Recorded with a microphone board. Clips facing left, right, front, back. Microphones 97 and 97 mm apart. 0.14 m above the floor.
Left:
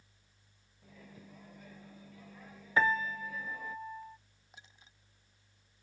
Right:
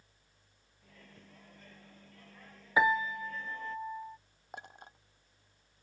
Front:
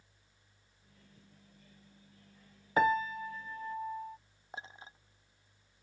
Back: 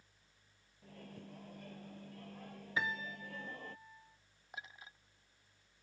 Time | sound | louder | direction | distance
0.8 | a microwave | left 4 dB, back 12 dB | 170° left | ?
2.8 | a piano | right 2 dB, front 12 dB | 15° right | ?
4.5 | a clink | right 12 dB, front 4 dB | 60° right | ?